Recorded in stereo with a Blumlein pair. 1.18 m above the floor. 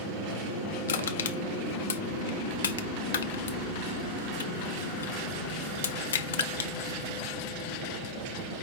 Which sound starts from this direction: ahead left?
Crushing, at 0.9 s.